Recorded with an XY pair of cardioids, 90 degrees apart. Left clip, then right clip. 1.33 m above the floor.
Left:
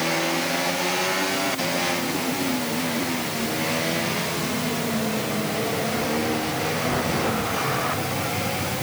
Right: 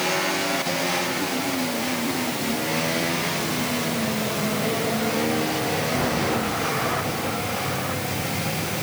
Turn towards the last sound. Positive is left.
No sound to turn to.